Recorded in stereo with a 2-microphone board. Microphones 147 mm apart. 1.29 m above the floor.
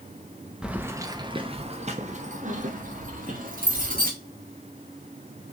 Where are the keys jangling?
5° right (ahead or behind), 0.7 m; by 4.1 s 75° right (ahead or behind), 1.9 m.